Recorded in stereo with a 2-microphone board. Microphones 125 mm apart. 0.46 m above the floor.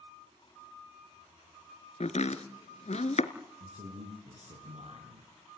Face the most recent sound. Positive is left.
turn(degrees=-70)  # may be behind; listen again after turning